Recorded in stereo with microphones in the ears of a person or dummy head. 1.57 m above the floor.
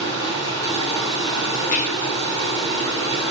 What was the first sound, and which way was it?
Running water, 25° left (ahead or behind).